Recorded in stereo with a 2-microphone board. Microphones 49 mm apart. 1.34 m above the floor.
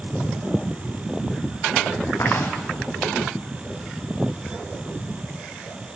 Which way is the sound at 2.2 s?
65° left (ahead or behind).